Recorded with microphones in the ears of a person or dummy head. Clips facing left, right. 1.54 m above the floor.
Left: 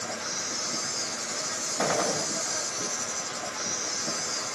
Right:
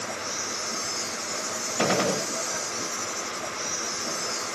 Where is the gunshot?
45° right (ahead or behind), 0.7 m.